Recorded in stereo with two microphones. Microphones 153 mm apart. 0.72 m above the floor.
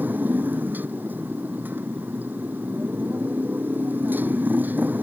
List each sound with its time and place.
0.0 s a motorcycle: 10° right (ahead or behind)